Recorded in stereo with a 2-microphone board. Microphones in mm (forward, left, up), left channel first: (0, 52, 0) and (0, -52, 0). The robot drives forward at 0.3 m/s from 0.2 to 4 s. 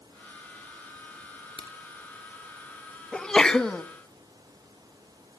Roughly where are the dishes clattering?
I don't hear dishes clattering.